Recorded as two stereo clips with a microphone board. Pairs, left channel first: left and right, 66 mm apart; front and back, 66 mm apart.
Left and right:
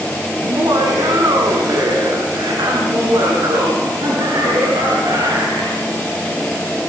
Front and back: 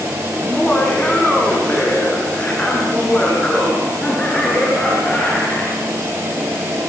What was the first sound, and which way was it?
Laughter, 75° right.